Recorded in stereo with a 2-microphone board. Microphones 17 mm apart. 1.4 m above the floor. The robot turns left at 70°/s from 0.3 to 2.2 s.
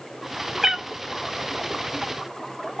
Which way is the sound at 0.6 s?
30° right (ahead or behind).